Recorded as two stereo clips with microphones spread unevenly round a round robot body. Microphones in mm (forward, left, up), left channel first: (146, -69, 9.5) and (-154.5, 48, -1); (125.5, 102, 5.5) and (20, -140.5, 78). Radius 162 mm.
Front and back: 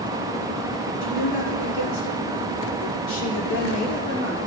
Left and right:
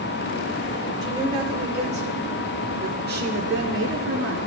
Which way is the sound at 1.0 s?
35° right.